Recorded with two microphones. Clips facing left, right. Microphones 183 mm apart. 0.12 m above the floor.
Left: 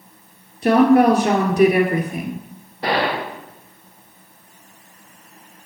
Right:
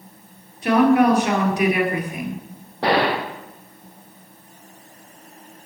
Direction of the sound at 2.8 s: 75° right (ahead or behind).